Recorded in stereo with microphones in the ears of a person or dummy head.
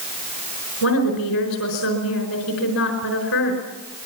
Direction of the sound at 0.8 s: 90° left.